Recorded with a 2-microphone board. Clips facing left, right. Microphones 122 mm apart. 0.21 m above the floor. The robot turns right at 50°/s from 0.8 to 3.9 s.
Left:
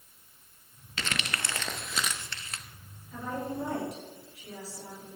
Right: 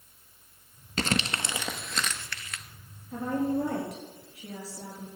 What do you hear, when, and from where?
1.0 s crumpling: 45° right (ahead or behind), 0.8 m; by 2.6 s 40° left (ahead or behind), 0.8 m
3.1 s a woman speaking: 145° right, 4 m; by 5.1 s 105° right, 4 m